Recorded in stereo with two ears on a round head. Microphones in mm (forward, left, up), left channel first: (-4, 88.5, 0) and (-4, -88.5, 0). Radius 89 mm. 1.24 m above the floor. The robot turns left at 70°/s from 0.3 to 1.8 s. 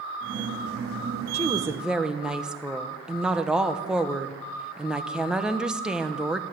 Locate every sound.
1.3 s a woman speaking: 145° right, 1.0 m; by 6.4 s 175° right, 1.0 m